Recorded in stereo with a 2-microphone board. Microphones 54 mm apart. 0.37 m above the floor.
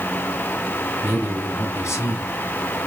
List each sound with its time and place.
1.0 s a man speaking: 55° left (ahead or behind), 3 m